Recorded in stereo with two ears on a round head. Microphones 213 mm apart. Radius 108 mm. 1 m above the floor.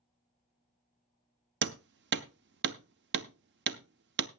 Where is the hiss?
No hiss in this recording.